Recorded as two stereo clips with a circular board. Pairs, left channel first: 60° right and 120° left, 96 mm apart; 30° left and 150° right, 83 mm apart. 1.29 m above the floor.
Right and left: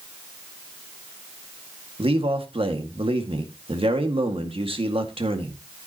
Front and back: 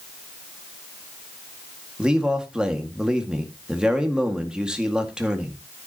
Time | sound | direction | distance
2.0 | a man speaking | 130° left | 2.0 m